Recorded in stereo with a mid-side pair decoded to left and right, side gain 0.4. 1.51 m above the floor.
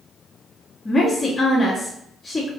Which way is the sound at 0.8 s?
40° left.